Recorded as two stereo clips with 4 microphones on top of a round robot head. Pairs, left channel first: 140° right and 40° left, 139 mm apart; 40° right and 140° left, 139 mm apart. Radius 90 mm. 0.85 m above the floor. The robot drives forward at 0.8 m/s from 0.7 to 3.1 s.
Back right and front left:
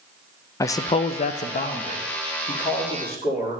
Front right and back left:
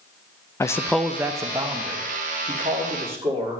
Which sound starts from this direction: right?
A man speaking, at 0.6 s.